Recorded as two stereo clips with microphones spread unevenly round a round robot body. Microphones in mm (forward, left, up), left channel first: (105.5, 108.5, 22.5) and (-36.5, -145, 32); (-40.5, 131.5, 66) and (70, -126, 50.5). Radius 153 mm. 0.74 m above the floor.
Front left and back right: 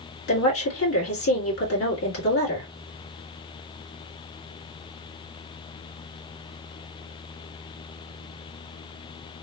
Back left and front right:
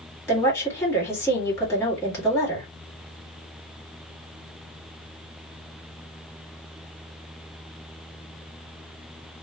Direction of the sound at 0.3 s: 30° left.